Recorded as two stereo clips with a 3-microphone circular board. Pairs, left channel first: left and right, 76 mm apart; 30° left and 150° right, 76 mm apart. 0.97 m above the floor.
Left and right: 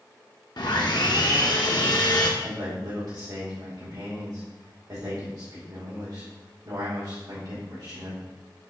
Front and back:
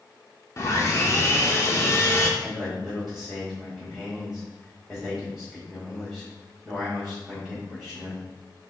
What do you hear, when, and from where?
0.6 s sawing: 75° left, 1.0 m
2.4 s a man speaking: 55° right, 3 m